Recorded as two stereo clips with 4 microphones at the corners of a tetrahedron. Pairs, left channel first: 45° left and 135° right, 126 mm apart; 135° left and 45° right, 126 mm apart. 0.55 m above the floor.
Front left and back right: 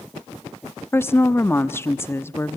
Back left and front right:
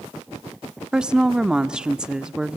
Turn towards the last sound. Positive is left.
turn(degrees=25)